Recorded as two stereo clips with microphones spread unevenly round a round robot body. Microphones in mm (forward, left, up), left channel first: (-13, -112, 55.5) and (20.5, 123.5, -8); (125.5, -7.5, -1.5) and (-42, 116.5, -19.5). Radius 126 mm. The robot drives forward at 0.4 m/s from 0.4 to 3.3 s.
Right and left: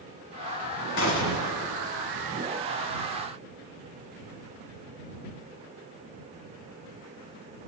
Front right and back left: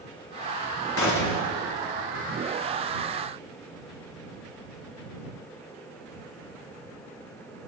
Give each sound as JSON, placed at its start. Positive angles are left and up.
{"t": 1.0, "sound": "a gunshot", "azimuth_deg": -65, "distance_m": 2.5}